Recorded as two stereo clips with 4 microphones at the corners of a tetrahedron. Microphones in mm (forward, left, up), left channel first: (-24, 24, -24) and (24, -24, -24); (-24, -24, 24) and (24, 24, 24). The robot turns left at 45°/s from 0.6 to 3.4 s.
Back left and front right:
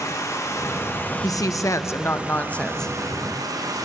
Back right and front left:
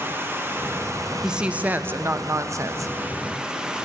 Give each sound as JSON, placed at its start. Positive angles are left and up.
{"t": 0.0, "sound": "running water", "azimuth_deg": 100, "distance_m": 1.1}
{"t": 1.2, "sound": "a woman speaking", "azimuth_deg": 125, "distance_m": 0.6}